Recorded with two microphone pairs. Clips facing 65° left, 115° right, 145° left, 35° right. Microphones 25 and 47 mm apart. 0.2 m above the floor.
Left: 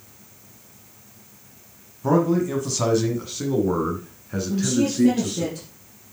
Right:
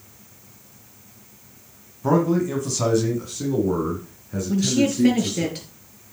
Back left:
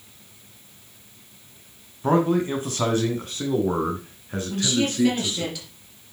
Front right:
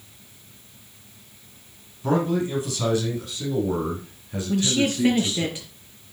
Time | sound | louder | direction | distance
2.0 | a man speaking | even, back left 2 dB | straight behind | 1.7 m
4.5 | a woman speaking | right 2 dB, front right 2 dB | 100° right | 4 m